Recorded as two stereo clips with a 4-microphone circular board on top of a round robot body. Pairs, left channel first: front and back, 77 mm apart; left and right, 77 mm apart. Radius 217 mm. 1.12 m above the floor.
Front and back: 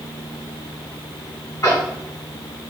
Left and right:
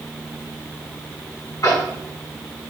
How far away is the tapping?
About 6.5 m.